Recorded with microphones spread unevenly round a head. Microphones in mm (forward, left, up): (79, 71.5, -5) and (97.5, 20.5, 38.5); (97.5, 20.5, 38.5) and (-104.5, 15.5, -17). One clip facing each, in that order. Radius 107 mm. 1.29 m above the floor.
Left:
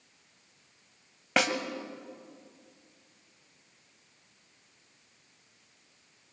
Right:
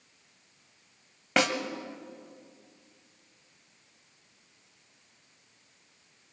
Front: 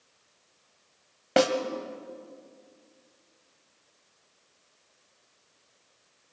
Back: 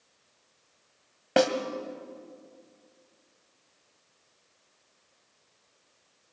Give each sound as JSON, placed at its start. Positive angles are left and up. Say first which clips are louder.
{"t": 1.4, "sound": "a snare drum", "louder": "right 1 dB, even", "azimuth_deg": -70, "distance_m": 1.3}